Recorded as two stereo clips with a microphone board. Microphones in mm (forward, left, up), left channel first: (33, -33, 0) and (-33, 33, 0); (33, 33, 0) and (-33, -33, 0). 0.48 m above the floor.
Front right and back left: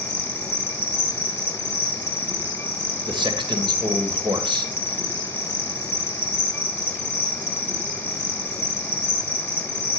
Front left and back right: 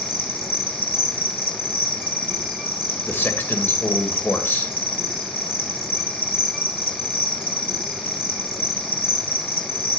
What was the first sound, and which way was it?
An insect, 60° left.